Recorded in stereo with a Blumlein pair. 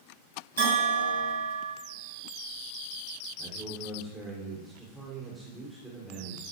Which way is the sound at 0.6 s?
70° right.